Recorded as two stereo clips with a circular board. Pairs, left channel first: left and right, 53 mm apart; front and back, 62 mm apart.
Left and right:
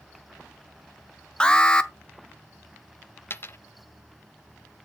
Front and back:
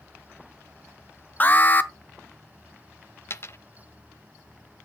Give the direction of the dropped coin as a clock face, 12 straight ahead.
11 o'clock.